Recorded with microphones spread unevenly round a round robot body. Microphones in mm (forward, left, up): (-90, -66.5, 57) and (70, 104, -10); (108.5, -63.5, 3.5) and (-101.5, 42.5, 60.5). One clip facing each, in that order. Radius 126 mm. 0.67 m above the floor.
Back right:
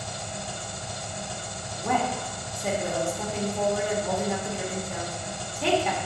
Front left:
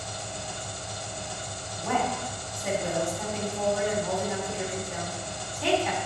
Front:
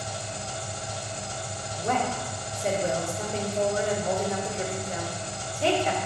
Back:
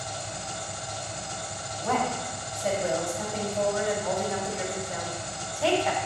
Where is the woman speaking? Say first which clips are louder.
Back right 1 dB, even; 90° right, 2.5 m.